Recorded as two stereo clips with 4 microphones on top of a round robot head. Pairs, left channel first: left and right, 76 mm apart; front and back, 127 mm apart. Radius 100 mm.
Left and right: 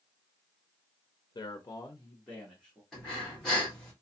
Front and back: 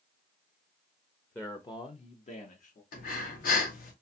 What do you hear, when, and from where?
1.4 s a man speaking: 75° left, 0.5 m; by 2.8 s 5° left, 1.0 m
2.9 s breathing: 5° left, 0.8 m